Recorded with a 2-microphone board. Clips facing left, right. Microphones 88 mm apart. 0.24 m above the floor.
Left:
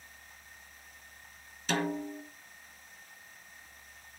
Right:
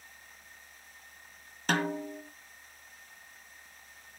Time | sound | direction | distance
1.7 | a snare drum | 50° right (ahead or behind) | 3 m